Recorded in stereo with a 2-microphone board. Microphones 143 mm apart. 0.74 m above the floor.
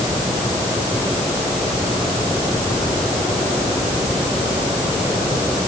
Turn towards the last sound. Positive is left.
No sound to turn to.